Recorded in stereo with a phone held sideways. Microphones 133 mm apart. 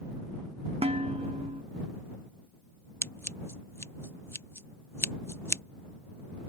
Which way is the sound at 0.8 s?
50° right (ahead or behind).